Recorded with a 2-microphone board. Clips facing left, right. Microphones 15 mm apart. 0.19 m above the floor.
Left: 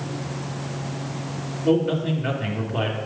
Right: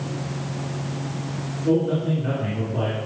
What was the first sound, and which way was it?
A man speaking, 40° left (ahead or behind).